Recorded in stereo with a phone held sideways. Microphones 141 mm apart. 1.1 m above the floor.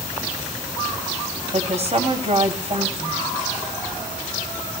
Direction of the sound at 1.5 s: 50° right (ahead or behind).